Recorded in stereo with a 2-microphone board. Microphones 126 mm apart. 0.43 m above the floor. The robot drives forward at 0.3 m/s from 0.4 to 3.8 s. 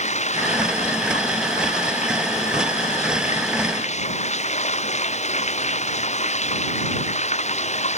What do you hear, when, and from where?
0.0 s running water: 65° left (ahead or behind)